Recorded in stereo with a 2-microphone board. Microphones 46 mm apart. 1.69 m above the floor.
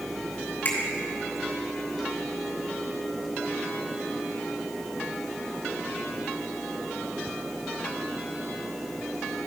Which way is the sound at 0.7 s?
55° left (ahead or behind).